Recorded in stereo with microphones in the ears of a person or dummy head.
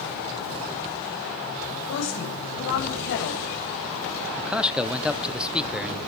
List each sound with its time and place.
1.9 s a woman speaking: 65° left (ahead or behind), 9 m
4.4 s a man speaking: 5° right (ahead or behind), 1.0 m